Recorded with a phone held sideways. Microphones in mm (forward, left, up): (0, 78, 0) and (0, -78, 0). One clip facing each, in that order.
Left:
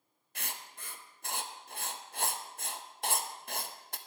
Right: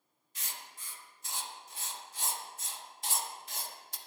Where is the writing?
60° left (ahead or behind), 0.7 m.